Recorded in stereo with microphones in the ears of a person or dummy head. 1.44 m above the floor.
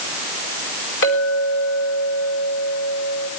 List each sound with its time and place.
1.0 s a clink: 60° left (ahead or behind), 5.5 m